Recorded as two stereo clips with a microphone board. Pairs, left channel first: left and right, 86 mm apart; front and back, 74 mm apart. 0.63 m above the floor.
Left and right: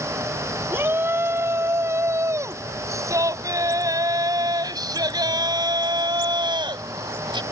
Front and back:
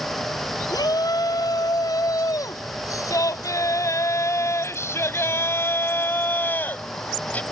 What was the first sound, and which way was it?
A shout, 25° right.